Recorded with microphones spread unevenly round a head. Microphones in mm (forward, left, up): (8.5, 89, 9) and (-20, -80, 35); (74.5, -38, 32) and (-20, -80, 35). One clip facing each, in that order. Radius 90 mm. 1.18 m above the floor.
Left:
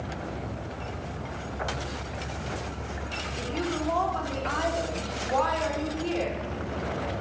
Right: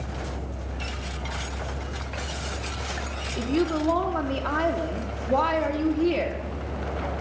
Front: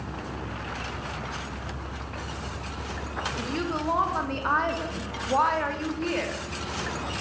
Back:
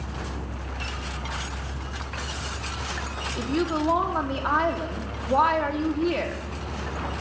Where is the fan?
75° right, 8 m.